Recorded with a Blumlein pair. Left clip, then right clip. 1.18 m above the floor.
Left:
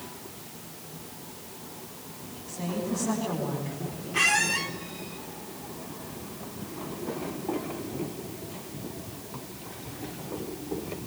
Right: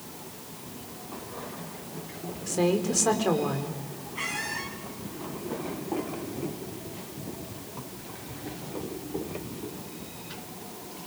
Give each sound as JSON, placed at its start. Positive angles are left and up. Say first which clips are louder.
{"t": 2.5, "sound": "a woman speaking", "louder": "right 8 dB", "azimuth_deg": -40, "distance_m": 4.5}
{"t": 4.1, "sound": "a squeak", "louder": "left 9 dB", "azimuth_deg": 40, "distance_m": 2.5}